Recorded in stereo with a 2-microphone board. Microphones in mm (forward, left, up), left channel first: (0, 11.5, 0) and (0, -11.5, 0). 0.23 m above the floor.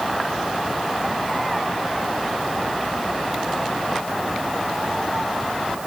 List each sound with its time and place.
Only background noise.